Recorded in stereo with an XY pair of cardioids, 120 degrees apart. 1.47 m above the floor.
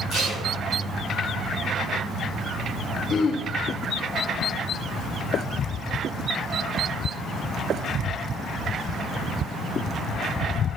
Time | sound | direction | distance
0.1 | tape being pulled | 55° right | 5 m
3.1 | throat clearing | 40° left | 1.7 m